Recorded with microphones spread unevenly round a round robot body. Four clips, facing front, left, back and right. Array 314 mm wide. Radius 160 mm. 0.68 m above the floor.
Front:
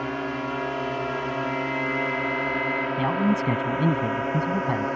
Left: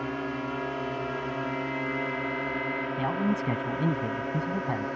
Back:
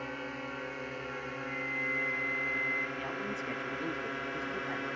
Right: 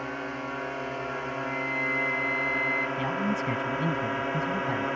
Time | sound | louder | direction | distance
0.0 | a drone | left 2 dB, front 11 dB | 25° left | ?
1.5 | a flute | even, front 11 dB | 70° right | ?
3.0 | a man speaking | left 1 dB, front 14 dB | 5° left | ?